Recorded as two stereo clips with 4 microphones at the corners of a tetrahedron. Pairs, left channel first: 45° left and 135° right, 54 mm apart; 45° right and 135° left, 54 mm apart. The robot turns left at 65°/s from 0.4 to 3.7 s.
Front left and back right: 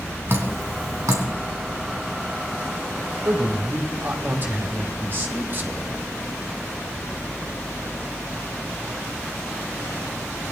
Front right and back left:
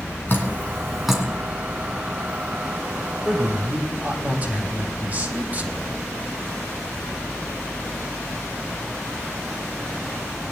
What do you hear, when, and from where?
0.3 s dripping: 95° right, 2.5 m; by 1.2 s 150° right, 2.5 m
3.2 s a man speaking: 145° right, 2.5 m; by 5.9 s 175° right, 2.5 m